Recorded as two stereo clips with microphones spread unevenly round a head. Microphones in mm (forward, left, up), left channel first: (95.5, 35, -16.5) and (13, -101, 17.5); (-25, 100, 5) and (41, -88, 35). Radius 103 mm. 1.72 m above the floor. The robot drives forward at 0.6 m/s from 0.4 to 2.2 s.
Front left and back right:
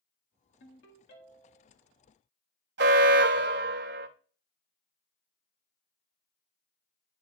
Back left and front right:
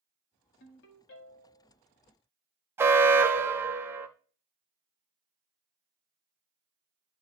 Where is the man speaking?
No man speaking in this recording.